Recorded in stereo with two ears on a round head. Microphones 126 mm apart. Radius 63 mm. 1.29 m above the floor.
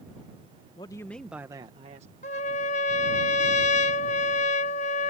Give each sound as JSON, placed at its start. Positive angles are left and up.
{"t": 0.8, "sound": "a man speaking", "side_deg": 30}
{"t": 2.2, "sound": "a trumpet", "side_deg": 50}